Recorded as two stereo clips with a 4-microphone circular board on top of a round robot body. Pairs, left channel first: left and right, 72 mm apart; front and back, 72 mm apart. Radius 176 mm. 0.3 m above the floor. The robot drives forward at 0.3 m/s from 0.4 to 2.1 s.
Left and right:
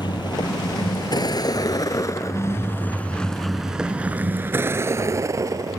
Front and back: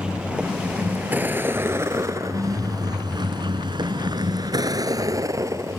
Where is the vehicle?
105° left; by 5.8 s 130° right.